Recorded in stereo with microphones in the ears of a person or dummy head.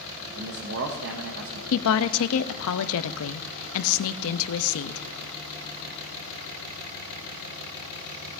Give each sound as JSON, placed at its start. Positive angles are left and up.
{"t": 0.3, "sound": "a man speaking", "side_deg": -65, "distance_m": 1.1}
{"t": 1.7, "sound": "a woman speaking", "side_deg": 75, "distance_m": 0.7}